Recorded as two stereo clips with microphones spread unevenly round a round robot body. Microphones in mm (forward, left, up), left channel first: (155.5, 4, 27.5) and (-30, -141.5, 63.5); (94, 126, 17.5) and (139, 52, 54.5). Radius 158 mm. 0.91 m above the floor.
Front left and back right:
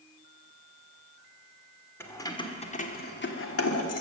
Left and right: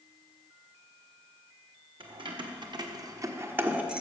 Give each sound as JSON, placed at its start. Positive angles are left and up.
{"t": 2.0, "sound": "keys jangling", "azimuth_deg": -45, "distance_m": 1.7}